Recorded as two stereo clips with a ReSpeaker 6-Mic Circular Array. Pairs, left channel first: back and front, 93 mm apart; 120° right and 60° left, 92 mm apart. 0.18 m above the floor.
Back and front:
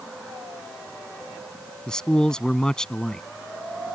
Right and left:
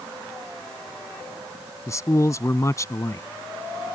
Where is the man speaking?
105° right.